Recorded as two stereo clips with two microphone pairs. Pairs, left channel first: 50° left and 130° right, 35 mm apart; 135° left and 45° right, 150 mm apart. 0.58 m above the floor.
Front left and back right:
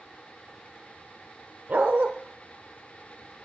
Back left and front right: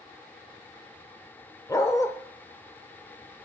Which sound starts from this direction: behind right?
A dog barking, at 1.7 s.